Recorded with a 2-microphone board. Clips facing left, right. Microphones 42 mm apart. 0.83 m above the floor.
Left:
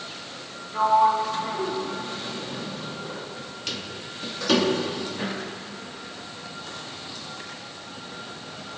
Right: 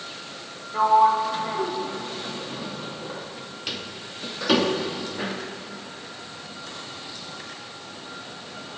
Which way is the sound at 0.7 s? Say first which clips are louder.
Right 2 dB; 10° right (ahead or behind).